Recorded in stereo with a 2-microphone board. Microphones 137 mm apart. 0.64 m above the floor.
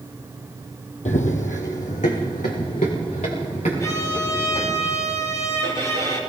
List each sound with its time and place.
1.1 s running footsteps: 70° left (ahead or behind), 1.5 m; by 4.8 s 65° left (ahead or behind), 6.5 m
3.8 s a violin: 30° left (ahead or behind), 4 m